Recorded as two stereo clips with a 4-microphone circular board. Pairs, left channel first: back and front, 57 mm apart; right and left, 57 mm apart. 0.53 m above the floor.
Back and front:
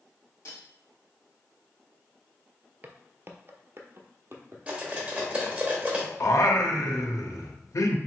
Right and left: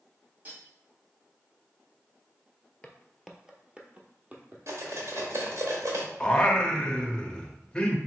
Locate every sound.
0.5 s cutlery clinking: 145° left, 1.9 m
2.8 s footsteps: 30° right, 0.6 m; by 5.0 s 40° left, 1.3 m
4.7 s cutlery clinking: 65° left, 1.1 m
6.2 s singing: 160° right, 0.5 m